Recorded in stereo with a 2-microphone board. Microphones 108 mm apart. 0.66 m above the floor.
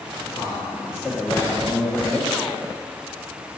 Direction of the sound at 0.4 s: 25° left (ahead or behind).